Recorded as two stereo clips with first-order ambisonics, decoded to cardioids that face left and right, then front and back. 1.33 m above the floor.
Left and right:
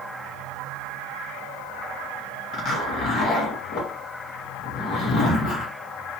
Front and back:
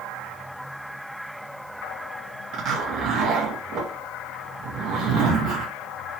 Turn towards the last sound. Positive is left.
turn(degrees=140)